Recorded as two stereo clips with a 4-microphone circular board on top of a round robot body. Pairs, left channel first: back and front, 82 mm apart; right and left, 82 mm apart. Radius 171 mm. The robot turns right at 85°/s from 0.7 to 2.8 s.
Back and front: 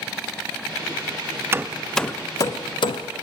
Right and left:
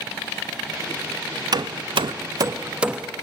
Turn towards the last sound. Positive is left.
turn(degrees=165)